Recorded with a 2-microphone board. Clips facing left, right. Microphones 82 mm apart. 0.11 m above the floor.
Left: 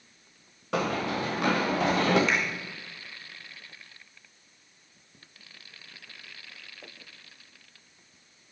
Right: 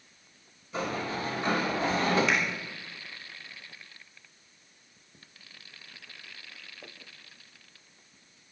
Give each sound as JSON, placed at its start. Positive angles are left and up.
{"t": 0.7, "sound": "running footsteps", "side_deg": 75, "distance_m": 2.5}
{"t": 2.3, "sound": "a finger snap", "side_deg": 0, "distance_m": 3.5}